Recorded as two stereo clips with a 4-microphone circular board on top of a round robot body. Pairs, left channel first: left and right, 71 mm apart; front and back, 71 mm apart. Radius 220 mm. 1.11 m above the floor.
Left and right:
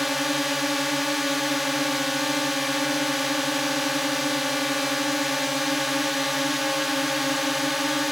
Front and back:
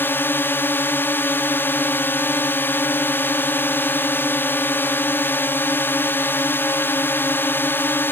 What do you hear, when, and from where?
0.0 s a drone: 5° right